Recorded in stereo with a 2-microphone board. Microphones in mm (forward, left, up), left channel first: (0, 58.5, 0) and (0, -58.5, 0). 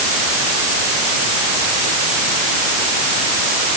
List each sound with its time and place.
Only background noise.